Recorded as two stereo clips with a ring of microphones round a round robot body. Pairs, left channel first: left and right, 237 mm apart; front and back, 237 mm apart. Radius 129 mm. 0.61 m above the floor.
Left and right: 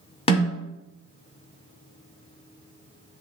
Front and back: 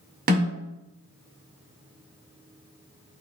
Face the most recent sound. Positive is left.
turn(degrees=145)